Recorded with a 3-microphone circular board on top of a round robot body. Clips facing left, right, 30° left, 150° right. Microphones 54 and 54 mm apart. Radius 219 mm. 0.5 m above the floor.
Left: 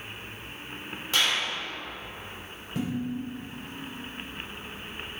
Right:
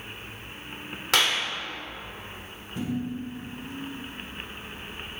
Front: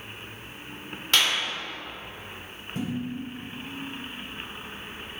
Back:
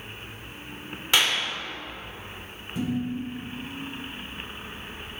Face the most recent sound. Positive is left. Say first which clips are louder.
# even, back 3 dB
turn(degrees=80)